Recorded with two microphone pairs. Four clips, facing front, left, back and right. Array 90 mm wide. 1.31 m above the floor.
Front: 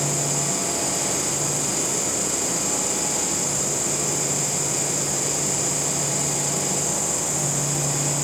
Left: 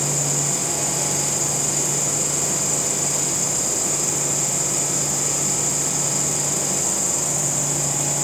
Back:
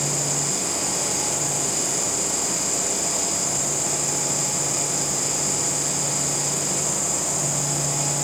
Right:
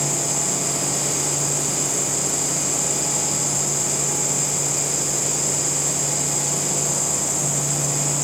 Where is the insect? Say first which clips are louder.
Even, front 2 dB; 125° left, 4.5 m.